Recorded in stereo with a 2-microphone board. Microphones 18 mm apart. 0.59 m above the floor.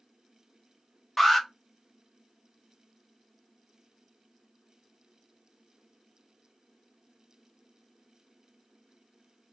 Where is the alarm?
15° left (ahead or behind), 1.2 m.